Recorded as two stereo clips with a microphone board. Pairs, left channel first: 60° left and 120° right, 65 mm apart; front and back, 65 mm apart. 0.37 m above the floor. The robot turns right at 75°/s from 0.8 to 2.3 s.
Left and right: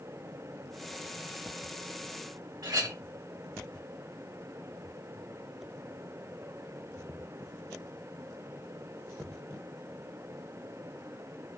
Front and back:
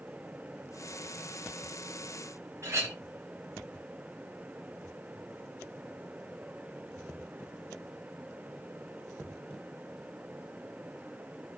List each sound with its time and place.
2.6 s a clink: 135° right, 1.2 m